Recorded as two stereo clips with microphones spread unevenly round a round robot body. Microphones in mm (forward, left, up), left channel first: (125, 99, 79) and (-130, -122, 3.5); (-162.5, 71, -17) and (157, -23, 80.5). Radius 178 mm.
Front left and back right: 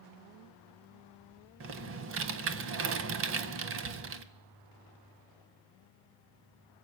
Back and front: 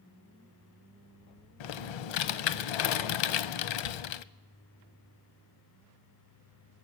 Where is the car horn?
I don't hear a car horn.